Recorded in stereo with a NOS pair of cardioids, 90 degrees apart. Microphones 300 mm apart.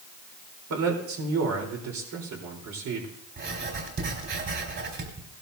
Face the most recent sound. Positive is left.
turn(degrees=-40)